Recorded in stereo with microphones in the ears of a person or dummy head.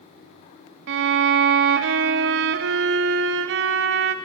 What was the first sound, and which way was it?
A violin, 65° right (ahead or behind).